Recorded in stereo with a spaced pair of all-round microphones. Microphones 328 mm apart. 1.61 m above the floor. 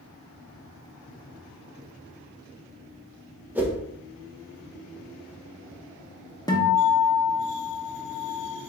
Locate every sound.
3.5 s a whoosh: 5° right (ahead or behind), 0.8 m
6.5 s a guitar: 10° left (ahead or behind), 0.9 m